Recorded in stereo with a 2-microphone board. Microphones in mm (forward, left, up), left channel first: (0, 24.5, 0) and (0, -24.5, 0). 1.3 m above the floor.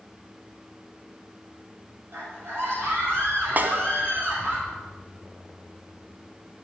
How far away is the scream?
About 7.5 m.